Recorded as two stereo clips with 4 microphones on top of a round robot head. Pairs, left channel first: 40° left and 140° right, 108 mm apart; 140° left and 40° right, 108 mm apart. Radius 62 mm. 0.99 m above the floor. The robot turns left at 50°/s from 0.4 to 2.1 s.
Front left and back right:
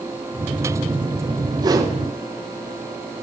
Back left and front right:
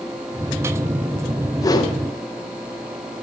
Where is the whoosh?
175° right, 1.1 m; by 2.0 s 170° left, 1.1 m.